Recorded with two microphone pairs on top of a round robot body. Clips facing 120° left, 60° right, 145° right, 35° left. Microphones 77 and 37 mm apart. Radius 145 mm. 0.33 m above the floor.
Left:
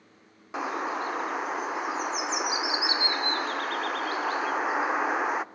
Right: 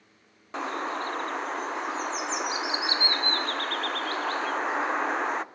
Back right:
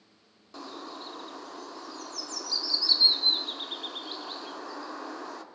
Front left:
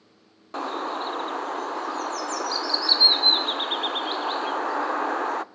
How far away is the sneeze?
No sneeze in this recording.